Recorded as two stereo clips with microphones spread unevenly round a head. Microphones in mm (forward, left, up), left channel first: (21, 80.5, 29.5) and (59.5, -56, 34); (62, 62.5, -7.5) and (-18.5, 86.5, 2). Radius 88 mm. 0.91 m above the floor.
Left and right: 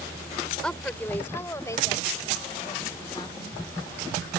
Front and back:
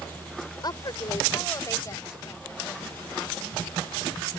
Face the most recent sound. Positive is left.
turn(degrees=50)